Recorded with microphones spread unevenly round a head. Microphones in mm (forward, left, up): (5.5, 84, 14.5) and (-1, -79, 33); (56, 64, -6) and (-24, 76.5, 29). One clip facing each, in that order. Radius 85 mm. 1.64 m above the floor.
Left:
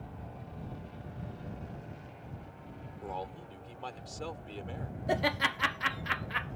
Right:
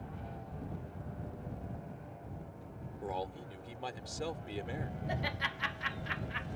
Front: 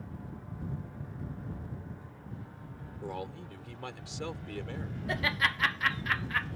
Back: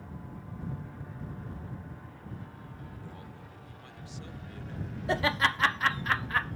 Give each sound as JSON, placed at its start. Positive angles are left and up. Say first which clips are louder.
{"t": 3.0, "sound": "a man speaking", "louder": "right 1 dB, front 8 dB", "azimuth_deg": -15}
{"t": 5.1, "sound": "laughter", "louder": "left 11 dB, back 4 dB", "azimuth_deg": 120}